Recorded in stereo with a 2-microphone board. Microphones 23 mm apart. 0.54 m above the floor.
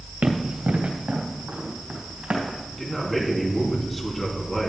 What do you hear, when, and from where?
0.2 s running footsteps: 70° right (ahead or behind), 2 m; by 2.6 s 85° right, 5 m
2.7 s a man speaking: 10° left (ahead or behind), 4 m